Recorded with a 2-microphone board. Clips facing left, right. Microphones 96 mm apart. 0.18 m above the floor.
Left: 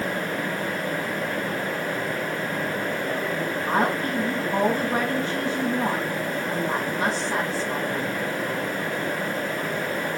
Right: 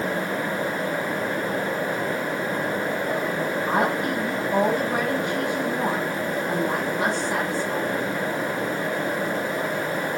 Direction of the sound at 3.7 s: 20° right (ahead or behind).